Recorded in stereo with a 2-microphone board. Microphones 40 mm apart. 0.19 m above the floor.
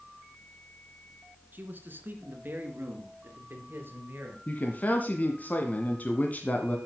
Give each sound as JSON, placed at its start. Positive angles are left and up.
{"t": 1.5, "sound": "a man speaking", "side_deg": -55, "distance_m": 2.5}
{"t": 4.5, "sound": "a man speaking", "side_deg": 40, "distance_m": 1.7}